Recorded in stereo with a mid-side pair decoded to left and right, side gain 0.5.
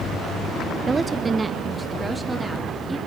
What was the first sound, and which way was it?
A woman speaking, 35° right.